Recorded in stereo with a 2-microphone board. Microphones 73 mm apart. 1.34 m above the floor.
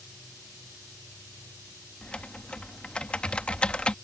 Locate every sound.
2.0 s typing on a keyboard: 15° left (ahead or behind)